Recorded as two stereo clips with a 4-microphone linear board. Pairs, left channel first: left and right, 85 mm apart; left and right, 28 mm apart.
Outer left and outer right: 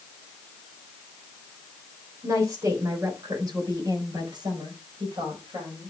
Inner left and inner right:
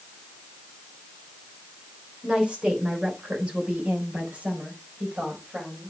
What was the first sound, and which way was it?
A woman speaking, 35° right (ahead or behind).